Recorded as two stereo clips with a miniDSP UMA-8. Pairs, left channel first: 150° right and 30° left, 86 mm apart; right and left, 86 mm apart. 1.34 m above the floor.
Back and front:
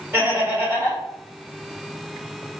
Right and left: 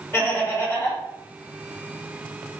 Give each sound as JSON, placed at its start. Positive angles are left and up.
{"t": 0.1, "sound": "laughter", "azimuth_deg": -30, "distance_m": 1.4}